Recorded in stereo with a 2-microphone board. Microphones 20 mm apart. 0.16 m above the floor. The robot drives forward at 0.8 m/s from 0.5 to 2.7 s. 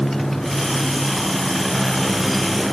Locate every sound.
0.0 s a motorcycle: 15° left (ahead or behind); by 2.7 s centre (ahead or behind)